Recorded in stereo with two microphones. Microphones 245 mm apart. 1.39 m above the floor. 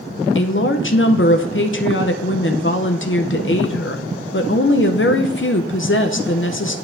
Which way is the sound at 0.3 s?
55° left (ahead or behind).